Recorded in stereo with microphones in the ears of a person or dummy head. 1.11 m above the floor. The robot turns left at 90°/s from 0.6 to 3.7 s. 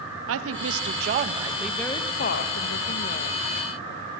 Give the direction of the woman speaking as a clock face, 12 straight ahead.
3 o'clock.